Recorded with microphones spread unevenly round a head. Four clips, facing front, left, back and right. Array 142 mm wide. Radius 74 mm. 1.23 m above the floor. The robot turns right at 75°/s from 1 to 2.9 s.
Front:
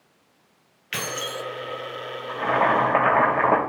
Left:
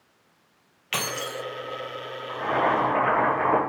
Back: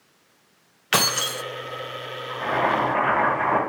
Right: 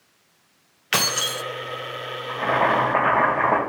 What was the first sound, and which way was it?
Keys jangling, 155° right.